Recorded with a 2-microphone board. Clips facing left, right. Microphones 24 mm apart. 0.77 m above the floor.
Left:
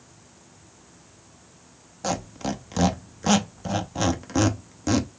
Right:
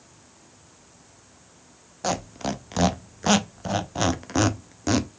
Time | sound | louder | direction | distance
2.0 | a squeak | right 1 dB | 10° right (ahead or behind) | 0.6 m